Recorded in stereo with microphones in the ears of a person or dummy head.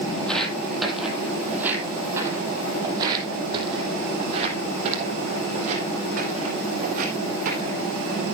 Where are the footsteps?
5° left (ahead or behind), 3 m; by 7.8 s 50° right (ahead or behind), 5 m.